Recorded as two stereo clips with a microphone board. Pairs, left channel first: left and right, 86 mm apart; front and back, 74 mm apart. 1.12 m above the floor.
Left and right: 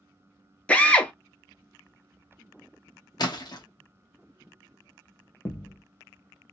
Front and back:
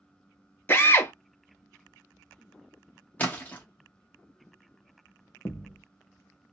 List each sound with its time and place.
0.7 s a drill: 30° left, 0.6 m
3.2 s a splash: 65° left, 1.0 m
5.5 s a thud: 45° left, 0.6 m